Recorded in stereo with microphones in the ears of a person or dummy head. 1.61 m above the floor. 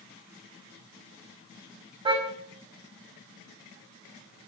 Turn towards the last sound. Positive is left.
turn(degrees=-30)  # may be behind; listen again after turning